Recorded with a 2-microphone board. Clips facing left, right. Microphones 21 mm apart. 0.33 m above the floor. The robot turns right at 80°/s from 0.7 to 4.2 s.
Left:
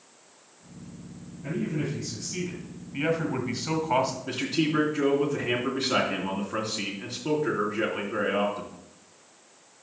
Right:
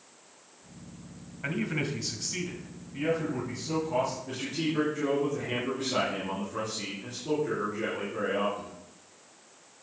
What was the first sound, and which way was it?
A man speaking, 90° right.